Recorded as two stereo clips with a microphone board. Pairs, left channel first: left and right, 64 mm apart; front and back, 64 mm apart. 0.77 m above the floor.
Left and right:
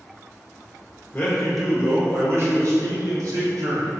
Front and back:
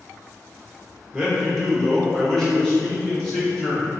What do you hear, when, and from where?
1.1 s a man speaking: 105° left, 0.7 m; by 3.9 s 80° right, 2.0 m